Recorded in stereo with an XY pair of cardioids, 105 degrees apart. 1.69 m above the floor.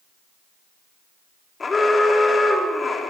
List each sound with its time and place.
1.6 s an alarm: 30° left, 5.5 m